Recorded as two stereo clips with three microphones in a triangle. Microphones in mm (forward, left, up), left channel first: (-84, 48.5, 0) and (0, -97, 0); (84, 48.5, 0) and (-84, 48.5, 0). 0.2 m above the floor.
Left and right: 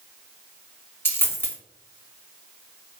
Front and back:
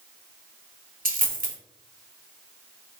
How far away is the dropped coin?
About 0.9 m.